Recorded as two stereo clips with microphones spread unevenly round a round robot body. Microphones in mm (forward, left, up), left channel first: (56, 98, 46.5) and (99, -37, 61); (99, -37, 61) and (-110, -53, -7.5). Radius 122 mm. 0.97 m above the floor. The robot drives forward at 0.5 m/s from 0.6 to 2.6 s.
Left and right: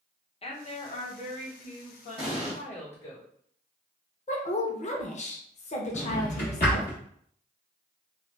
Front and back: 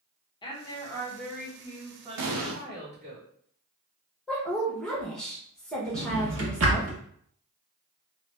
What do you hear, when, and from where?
0.4 s a woman speaking: 85° left, 0.9 m; by 3.2 s 140° left, 1.3 m
2.2 s an explosion: straight behind, 0.7 m
4.3 s a woman speaking: 100° left, 0.7 m
5.9 s a drawer: 150° left, 0.8 m